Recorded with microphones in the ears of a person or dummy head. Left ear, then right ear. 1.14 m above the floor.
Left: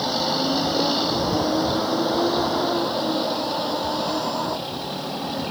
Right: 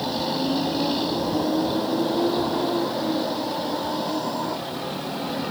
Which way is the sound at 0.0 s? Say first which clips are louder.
Left 3 dB; 30° left (ahead or behind).